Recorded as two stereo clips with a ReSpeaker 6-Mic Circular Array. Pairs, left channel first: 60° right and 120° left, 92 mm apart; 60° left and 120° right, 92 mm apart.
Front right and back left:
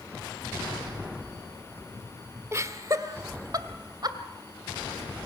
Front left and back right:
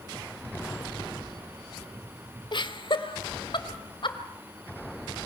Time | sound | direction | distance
2.5 | laughter | 70° left | 1.4 m